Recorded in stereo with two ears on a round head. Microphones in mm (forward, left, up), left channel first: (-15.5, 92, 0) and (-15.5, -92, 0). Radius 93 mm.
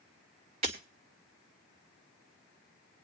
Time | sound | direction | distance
0.6 | breaking glass | 30° right (ahead or behind) | 1.7 m